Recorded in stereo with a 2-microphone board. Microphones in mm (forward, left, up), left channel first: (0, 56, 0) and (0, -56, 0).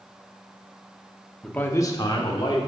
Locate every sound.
1.4 s a man speaking: 5° left (ahead or behind), 0.7 m; by 2.6 s 45° left (ahead or behind), 1.6 m